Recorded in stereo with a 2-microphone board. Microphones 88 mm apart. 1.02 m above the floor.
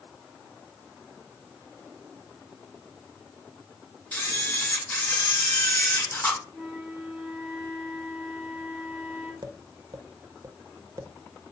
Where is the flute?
10° right (ahead or behind), 1.7 m.